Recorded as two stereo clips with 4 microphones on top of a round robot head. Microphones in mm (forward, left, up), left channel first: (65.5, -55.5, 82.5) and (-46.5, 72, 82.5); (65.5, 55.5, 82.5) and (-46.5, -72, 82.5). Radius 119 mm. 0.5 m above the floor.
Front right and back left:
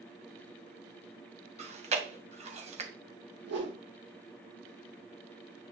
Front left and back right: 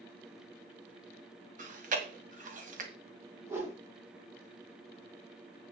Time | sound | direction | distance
1.6 | chewing | 175° right | 2 m
3.4 | a whoosh | 155° left | 4 m